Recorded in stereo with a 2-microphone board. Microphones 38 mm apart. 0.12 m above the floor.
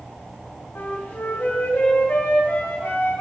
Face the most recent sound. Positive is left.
turn(degrees=60)  # may be behind; listen again after turning